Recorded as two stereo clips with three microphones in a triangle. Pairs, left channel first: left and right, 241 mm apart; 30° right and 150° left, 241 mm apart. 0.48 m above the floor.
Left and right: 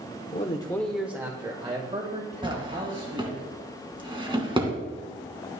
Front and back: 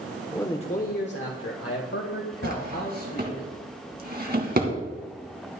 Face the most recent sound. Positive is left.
turn(degrees=-160)